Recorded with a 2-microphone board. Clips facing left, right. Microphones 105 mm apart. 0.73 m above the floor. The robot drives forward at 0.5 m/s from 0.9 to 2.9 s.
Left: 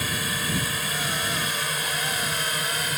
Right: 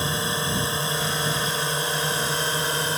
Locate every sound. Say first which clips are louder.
0.0 s a drone: right 3 dB; 25° right (ahead or behind); by 3.0 s 30° right (ahead or behind)